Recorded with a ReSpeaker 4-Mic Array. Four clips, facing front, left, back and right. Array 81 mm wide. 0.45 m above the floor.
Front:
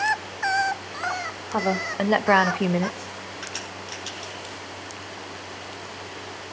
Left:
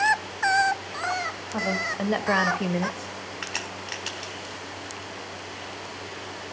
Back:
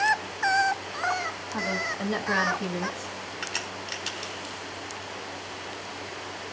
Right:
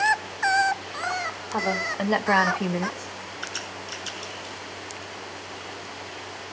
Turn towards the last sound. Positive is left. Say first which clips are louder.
# even, back 1 dB
turn(degrees=105)